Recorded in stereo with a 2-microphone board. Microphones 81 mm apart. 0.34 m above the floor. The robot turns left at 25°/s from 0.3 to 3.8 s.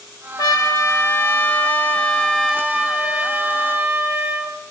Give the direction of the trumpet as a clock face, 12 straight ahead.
10 o'clock.